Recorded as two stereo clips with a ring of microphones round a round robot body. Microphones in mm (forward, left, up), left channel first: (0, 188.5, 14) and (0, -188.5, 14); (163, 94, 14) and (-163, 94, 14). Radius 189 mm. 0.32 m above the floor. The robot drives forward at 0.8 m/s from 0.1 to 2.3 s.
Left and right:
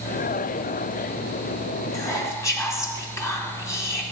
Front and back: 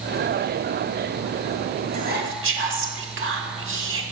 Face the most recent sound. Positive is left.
turn(degrees=165)